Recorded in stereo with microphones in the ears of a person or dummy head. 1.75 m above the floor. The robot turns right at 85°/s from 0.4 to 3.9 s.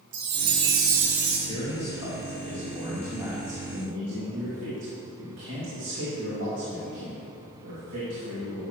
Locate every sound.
0.1 s a chime: 25° right (ahead or behind), 0.5 m; by 1.4 s 5° right (ahead or behind), 0.5 m
1.5 s a man speaking: 35° left, 2.5 m; by 8.7 s 120° right, 2.5 m